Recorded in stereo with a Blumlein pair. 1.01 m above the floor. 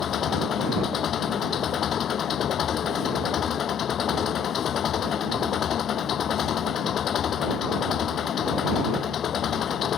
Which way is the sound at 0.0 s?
25° left.